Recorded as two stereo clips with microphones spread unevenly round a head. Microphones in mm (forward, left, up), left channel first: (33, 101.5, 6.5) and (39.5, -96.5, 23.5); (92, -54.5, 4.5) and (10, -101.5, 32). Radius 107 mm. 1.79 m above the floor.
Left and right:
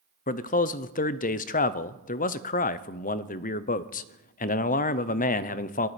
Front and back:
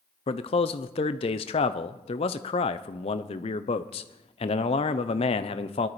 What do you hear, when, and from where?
0.3 s a man speaking: 55° left, 0.6 m